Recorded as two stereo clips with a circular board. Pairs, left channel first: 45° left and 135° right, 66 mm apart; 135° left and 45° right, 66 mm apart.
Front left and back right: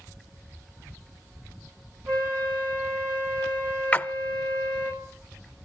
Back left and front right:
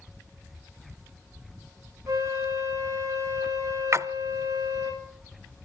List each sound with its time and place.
2.1 s a flute: 85° right, 6 m
3.9 s a splash: 20° right, 0.5 m